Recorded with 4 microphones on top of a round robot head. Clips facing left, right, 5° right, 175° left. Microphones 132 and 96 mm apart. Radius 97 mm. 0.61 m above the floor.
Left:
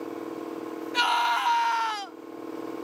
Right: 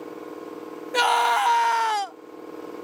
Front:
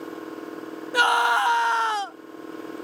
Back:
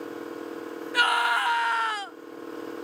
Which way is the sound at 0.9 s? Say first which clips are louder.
Right 5 dB, front 4 dB; 65° right.